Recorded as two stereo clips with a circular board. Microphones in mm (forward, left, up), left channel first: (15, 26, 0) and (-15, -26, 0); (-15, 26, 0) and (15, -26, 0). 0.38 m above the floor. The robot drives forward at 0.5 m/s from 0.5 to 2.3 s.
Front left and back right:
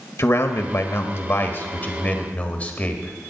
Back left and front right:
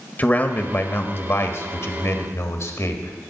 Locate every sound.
0.2 s a man speaking: 70° left, 1.5 m; by 3.3 s 115° left, 1.6 m